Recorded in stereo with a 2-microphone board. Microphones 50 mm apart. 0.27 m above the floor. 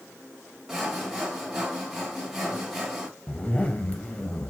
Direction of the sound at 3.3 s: 20° left (ahead or behind).